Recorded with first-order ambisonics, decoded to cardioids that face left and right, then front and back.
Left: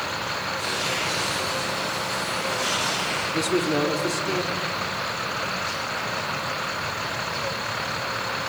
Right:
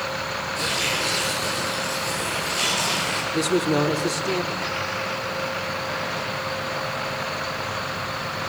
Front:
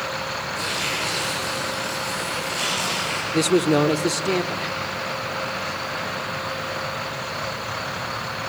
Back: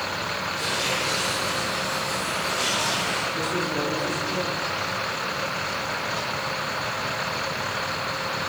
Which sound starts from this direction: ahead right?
Tearing paper, at 0.6 s.